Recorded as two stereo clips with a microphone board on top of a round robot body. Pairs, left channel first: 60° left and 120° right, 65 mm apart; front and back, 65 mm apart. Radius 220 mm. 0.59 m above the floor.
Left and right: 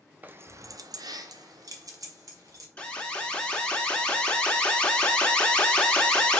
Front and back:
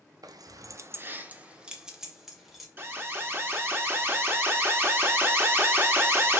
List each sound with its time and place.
0.2 s keys jangling: 175° left, 0.7 m; by 2.7 s 90° right, 1.8 m
2.8 s an alarm: 130° left, 1.4 m